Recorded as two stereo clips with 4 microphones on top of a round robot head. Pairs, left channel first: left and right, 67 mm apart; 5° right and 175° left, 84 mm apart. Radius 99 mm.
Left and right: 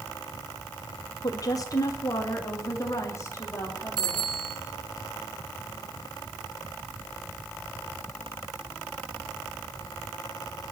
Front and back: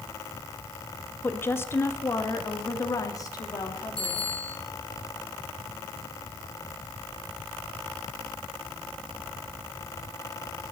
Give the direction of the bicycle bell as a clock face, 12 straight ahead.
3 o'clock.